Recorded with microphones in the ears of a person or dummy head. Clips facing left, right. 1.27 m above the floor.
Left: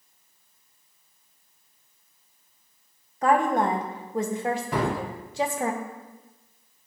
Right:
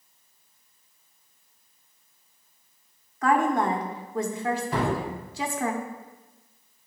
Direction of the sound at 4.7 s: 65° left (ahead or behind).